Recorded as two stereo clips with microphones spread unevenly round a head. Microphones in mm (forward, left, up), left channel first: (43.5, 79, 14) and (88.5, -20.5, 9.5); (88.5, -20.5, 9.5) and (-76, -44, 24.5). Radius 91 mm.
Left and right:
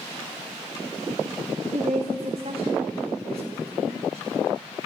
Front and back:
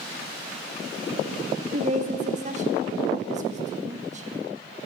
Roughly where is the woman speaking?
Behind right.